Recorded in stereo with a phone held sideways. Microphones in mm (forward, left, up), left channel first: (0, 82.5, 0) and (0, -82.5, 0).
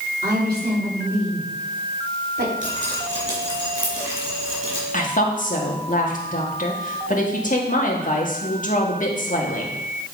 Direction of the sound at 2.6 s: 45° right (ahead or behind).